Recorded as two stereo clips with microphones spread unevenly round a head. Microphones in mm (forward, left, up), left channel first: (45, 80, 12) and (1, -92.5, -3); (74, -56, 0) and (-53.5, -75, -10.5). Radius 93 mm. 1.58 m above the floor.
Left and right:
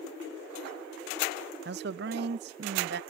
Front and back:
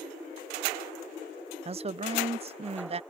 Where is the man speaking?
135° right.